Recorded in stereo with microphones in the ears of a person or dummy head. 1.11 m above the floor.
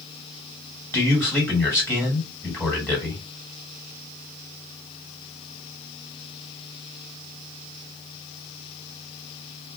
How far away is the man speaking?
About 1.5 m.